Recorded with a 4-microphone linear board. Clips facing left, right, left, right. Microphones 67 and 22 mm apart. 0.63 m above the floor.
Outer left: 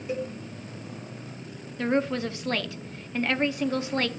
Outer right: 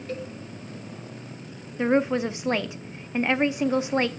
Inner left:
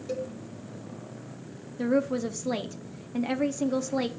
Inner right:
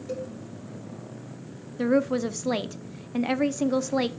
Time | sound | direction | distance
0.1 | a cowbell | 10° left (ahead or behind) | 1.0 m
1.8 | a woman speaking | 20° right (ahead or behind) | 0.5 m